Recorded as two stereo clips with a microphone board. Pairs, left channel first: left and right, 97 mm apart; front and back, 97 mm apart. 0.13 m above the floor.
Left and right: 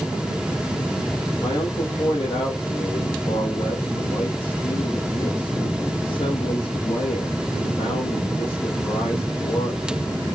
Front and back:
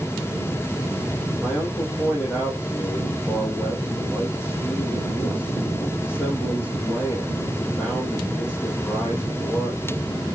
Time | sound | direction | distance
1.4 | a man speaking | 85° left | 4 m